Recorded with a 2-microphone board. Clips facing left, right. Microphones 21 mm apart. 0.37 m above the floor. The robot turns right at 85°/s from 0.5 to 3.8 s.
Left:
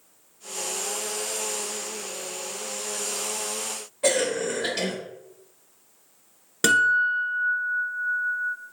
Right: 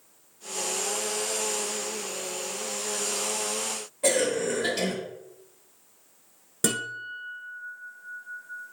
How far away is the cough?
About 0.9 m.